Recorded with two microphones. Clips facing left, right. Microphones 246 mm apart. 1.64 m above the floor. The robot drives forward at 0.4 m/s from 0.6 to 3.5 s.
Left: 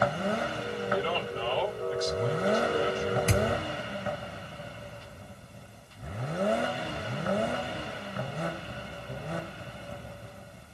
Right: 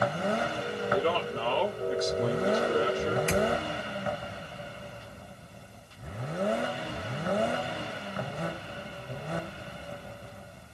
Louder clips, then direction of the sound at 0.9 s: Right 4 dB; 55° right (ahead or behind).